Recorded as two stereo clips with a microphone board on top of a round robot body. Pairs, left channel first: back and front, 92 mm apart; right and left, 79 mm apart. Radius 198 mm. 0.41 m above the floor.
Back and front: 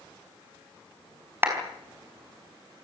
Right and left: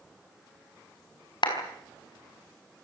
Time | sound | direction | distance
1.4 | a clap | 65° right | 5 m